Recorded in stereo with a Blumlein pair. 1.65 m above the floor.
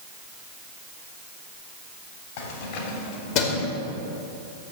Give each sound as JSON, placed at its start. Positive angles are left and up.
{"t": 2.4, "sound": "keys jangling", "azimuth_deg": 50, "distance_m": 3.0}